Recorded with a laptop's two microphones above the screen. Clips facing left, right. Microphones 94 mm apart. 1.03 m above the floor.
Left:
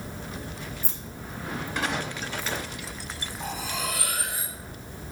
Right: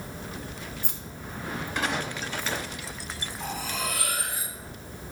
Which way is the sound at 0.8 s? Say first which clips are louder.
Left 1 dB; 65° right (ahead or behind).